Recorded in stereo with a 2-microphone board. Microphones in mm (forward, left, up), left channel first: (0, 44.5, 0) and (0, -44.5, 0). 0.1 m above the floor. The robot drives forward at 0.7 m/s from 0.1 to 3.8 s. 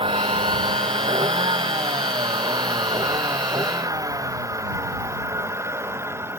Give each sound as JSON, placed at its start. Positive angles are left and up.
{"t": 0.0, "sound": "a vehicle", "side_deg": -85}